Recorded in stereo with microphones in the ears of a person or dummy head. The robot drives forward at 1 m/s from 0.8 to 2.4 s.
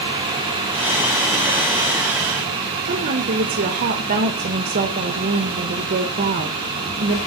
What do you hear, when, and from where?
2.9 s a woman speaking: 45° right (ahead or behind), 1.7 m